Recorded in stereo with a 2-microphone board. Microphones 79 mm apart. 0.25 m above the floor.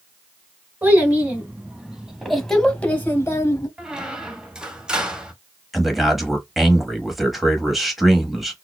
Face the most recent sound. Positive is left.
turn(degrees=0)  # may be behind; listen again after turning